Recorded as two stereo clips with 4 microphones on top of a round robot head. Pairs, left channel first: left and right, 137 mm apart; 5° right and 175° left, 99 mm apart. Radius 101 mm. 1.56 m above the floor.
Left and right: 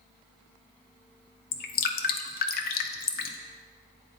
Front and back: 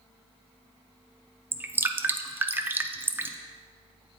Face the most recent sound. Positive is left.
turn(degrees=100)